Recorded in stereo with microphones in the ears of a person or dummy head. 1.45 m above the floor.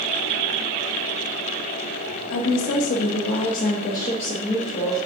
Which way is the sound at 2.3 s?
75° left (ahead or behind).